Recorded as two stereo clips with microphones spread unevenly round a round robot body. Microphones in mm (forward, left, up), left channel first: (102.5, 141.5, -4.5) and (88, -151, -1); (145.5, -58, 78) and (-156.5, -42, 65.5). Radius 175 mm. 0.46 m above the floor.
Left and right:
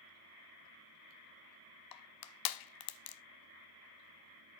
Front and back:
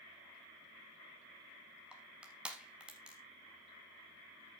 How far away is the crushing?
About 0.6 m.